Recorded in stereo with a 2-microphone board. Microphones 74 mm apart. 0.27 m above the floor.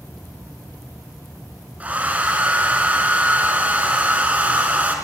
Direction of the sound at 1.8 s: 20° right (ahead or behind).